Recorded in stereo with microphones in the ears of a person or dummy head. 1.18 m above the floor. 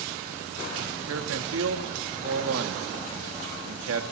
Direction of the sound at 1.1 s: 80° right.